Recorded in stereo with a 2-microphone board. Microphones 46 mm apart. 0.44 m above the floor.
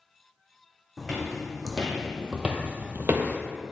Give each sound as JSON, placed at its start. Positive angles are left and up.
{"t": 1.0, "sound": "footsteps", "side_deg": 5, "distance_m": 1.2}